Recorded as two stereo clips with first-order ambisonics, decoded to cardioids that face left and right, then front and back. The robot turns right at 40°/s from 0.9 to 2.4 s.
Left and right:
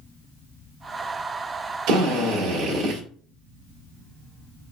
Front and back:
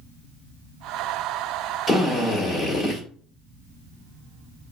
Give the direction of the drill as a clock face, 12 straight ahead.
3 o'clock.